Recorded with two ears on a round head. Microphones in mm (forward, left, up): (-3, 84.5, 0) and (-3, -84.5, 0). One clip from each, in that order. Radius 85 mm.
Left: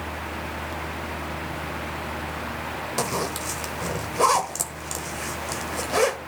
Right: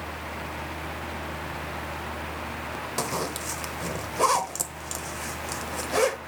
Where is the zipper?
5° right (ahead or behind), 0.8 m.